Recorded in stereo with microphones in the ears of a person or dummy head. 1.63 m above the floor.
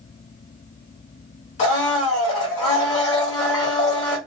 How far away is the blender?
About 1.7 m.